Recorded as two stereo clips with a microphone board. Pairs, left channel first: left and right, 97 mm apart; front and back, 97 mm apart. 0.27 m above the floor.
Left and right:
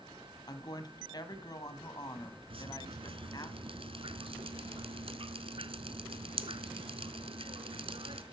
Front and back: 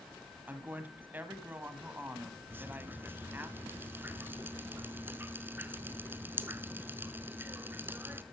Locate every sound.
0.5 s a woman speaking: 115° left, 1.9 m
2.5 s dripping: 110° right, 0.8 m